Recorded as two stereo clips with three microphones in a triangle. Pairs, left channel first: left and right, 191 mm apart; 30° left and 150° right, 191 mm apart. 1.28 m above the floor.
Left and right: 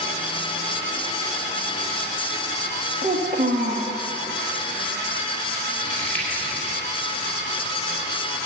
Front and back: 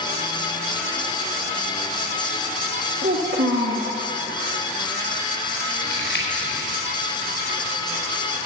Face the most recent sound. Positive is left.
turn(degrees=5)